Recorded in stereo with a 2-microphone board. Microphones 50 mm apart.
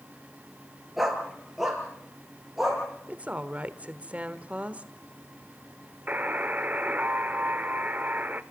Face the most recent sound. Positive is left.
turn(degrees=-35)  # may be behind; listen again after turning